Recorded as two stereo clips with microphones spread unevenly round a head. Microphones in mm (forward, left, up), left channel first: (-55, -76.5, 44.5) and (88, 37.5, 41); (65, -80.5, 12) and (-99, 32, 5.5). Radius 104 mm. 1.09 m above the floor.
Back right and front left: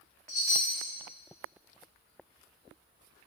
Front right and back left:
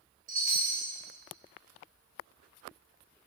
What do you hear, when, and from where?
0.3 s a chime: 170° right, 2 m